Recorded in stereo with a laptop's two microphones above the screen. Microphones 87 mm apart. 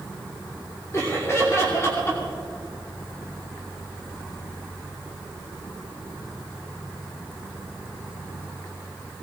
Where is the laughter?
30° left (ahead or behind), 2.5 m.